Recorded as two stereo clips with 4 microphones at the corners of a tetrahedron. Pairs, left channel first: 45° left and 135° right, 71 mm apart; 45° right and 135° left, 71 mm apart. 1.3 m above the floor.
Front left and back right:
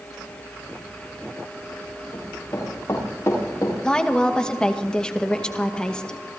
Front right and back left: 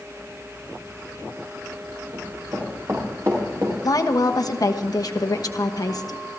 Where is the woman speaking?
30° right, 1.2 m.